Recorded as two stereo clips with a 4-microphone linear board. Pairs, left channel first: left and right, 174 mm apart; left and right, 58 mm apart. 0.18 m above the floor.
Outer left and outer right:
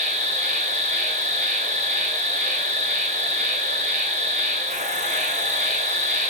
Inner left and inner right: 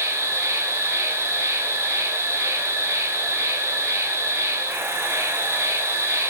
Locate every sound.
0.0 s an insect: 45° right (ahead or behind), 3.5 m